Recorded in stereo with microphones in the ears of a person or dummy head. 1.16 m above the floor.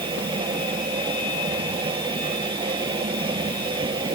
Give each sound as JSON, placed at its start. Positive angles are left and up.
{"t": 0.0, "sound": "a machine running", "side_deg": -25}